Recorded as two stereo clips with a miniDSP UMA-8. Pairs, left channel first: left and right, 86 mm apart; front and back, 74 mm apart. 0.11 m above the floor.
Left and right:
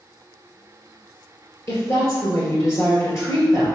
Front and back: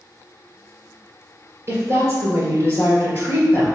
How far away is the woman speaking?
About 1.9 m.